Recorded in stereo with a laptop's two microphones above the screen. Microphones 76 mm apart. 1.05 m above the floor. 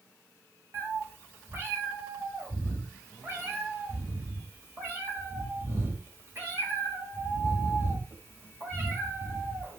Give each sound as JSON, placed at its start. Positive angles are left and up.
{"t": 0.7, "sound": "a cat meowing", "side_deg": -35, "distance_m": 3.0}